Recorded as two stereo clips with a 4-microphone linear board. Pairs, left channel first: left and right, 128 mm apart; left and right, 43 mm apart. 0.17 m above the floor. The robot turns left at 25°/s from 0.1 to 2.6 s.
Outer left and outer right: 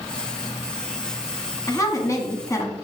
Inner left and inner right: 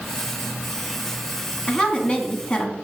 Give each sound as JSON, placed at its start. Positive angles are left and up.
{"t": 1.7, "sound": "a woman speaking", "side_deg": 25, "distance_m": 1.3}